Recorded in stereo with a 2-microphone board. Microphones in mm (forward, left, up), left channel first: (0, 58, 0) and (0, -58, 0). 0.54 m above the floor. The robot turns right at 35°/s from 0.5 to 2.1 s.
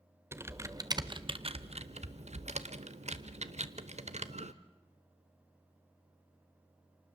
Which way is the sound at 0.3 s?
20° right (ahead or behind).